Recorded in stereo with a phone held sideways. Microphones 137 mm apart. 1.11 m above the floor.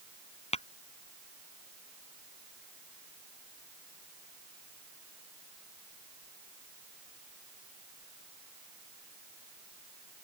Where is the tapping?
55° left (ahead or behind).